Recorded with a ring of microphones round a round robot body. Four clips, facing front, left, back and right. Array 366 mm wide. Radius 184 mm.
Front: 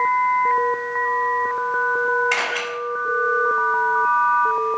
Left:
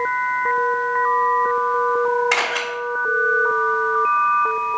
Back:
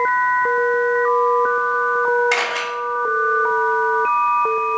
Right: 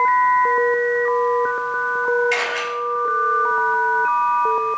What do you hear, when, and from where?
2.3 s a camera shutter: 110° left, 3 m